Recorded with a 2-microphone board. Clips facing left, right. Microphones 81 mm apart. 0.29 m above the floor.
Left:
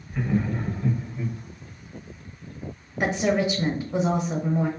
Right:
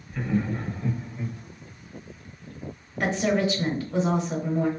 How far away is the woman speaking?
About 1.1 m.